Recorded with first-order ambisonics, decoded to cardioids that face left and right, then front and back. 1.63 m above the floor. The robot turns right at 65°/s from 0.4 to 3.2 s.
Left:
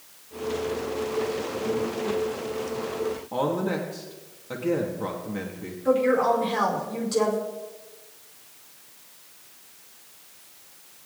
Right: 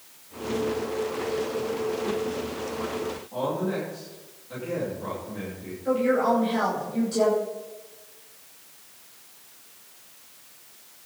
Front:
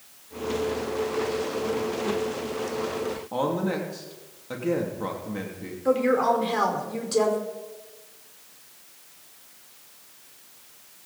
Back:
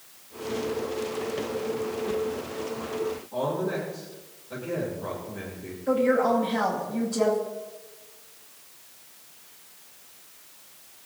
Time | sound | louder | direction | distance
3.3 | a woman speaking | left 1 dB, front 3 dB | 40° left | 3 m
5.8 | a woman speaking | left 2 dB, front 1 dB | 20° left | 5 m